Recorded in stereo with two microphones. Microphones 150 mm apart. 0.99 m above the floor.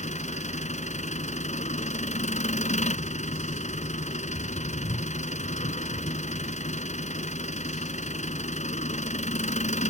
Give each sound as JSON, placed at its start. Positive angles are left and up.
{"t": 0.0, "sound": "an engine running", "side_deg": 55}